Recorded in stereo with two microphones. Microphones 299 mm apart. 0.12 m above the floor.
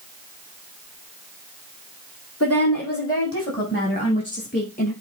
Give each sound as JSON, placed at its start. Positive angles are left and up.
{"t": 2.4, "sound": "a woman speaking", "side_deg": 55, "distance_m": 4.5}